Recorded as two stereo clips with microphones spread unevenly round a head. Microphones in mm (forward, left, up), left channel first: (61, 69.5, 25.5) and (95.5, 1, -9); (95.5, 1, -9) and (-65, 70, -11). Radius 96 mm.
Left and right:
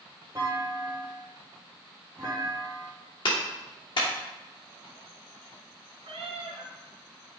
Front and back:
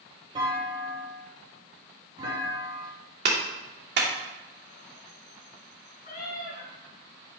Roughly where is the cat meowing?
Right.